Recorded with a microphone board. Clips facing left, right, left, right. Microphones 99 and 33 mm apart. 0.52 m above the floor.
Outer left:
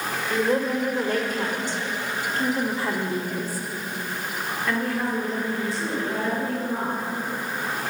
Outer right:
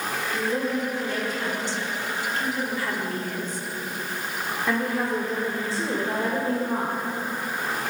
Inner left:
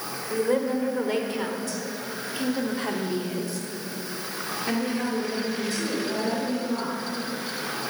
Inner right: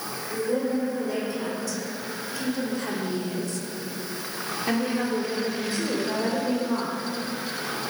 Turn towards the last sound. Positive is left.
turn(degrees=-50)  # may be behind; listen again after turning